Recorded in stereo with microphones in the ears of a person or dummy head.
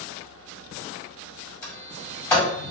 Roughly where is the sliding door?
Centre.